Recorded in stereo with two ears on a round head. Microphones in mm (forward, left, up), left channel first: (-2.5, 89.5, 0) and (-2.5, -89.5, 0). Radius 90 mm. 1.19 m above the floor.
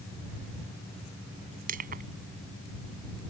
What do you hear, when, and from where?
1.7 s crushing: 45° right (ahead or behind)